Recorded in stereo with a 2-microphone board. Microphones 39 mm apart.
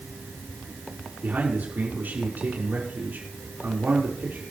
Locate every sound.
1.2 s a man speaking: 50° right (ahead or behind), 5.5 m